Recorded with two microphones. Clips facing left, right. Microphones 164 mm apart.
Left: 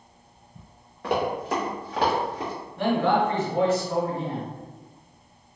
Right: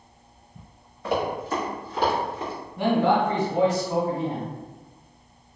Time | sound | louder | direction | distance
1.0 | running footsteps | even | 65° left (ahead or behind) | 1.7 m
2.8 | a man speaking | right 1 dB | 15° right (ahead or behind) | 1.1 m